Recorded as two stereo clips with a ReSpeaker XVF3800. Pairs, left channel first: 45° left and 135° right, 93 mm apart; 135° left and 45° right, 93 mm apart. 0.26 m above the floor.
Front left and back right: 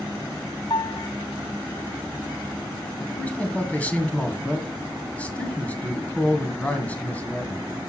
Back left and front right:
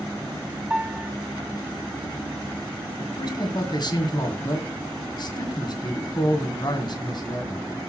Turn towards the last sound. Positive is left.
turn(degrees=115)